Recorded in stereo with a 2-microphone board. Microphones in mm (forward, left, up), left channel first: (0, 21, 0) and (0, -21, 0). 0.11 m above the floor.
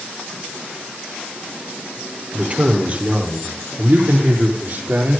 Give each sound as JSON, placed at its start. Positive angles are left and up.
{"t": 2.3, "sound": "a man speaking", "side_deg": -30, "distance_m": 3.0}